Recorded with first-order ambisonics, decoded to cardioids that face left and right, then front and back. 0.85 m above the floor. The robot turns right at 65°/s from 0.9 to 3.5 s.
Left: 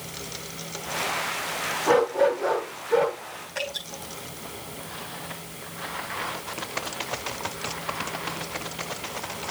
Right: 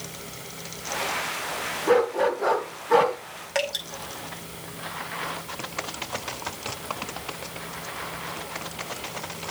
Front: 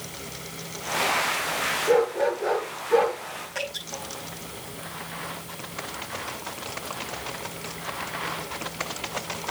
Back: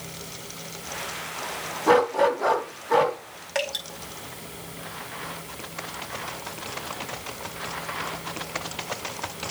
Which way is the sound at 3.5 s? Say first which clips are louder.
Right 5 dB, back 5 dB; 125° right.